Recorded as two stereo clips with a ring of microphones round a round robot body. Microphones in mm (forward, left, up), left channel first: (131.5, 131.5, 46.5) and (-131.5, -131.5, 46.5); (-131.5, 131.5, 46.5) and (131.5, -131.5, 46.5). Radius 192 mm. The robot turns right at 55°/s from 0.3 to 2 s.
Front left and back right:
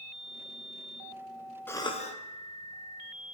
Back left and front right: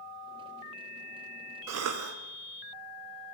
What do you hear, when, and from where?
1.7 s a cough: 35° right, 0.6 m; by 2.2 s 20° right, 0.6 m